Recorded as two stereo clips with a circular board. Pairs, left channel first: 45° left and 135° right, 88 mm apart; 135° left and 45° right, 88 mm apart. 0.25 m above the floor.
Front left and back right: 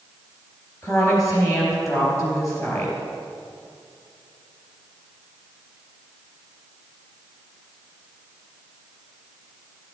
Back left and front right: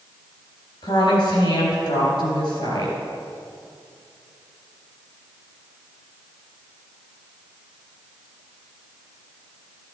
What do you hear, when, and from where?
0.8 s a woman speaking: 100° left, 4 m